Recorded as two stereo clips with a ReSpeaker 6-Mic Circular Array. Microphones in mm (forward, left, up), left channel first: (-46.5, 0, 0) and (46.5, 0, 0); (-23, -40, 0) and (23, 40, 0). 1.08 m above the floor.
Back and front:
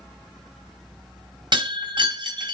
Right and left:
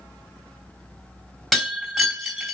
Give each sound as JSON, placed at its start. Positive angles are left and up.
{"t": 1.5, "sound": "breaking glass", "azimuth_deg": -35, "distance_m": 3.0}